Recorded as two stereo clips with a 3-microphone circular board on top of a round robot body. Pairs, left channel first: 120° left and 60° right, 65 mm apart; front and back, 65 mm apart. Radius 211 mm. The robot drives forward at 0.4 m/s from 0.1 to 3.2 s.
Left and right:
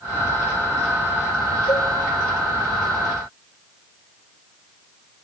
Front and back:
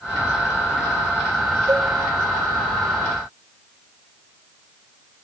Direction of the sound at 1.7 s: 135° left.